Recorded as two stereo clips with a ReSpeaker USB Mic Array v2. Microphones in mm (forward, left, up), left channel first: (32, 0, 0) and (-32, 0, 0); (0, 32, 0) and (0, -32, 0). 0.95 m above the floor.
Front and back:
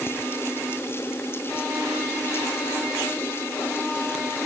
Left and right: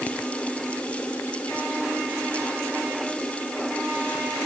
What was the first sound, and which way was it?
Only background noise.